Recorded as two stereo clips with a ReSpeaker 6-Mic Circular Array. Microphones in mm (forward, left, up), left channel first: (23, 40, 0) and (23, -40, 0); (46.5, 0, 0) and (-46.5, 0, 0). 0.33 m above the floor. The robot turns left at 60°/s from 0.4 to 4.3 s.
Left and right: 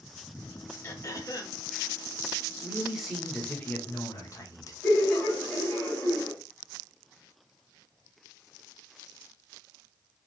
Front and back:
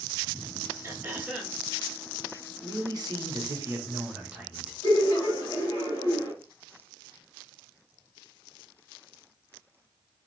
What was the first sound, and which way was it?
Throat clearing, 130° left.